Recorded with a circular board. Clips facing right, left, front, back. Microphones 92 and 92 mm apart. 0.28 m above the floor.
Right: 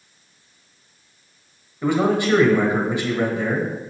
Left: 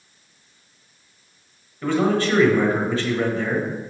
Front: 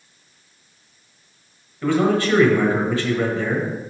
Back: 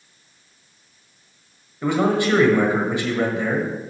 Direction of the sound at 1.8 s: 135° right.